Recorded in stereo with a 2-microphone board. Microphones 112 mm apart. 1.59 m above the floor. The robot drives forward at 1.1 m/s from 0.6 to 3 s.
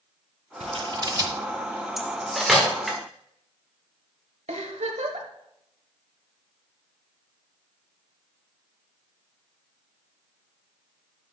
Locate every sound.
0.6 s scissors: 65° right (ahead or behind), 0.7 m; by 1.3 s 30° right (ahead or behind), 1.2 m
2.0 s cutlery clinking: centre (ahead or behind), 1.3 m
4.5 s a giggle: 85° right, 1.2 m